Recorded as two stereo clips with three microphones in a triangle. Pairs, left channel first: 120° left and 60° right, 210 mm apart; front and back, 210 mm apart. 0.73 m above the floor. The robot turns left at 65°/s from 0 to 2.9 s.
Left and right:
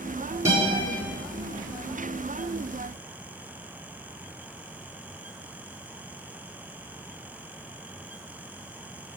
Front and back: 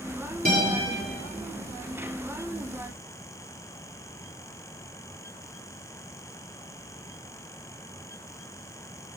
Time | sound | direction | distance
0.5 | a guitar | 135° right | 5 m